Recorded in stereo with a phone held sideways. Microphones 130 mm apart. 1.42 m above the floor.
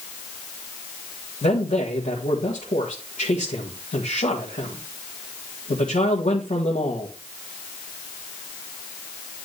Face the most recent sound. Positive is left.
turn(degrees=75)  # may be behind; listen again after turning